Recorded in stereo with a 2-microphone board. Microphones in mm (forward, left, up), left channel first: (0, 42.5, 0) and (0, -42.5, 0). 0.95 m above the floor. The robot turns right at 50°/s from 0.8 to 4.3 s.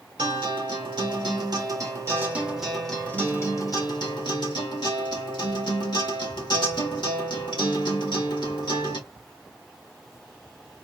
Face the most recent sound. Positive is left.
turn(degrees=80)